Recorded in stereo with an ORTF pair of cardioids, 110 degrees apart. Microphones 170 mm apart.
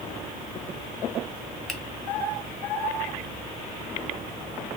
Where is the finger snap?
Straight ahead, 1.1 m.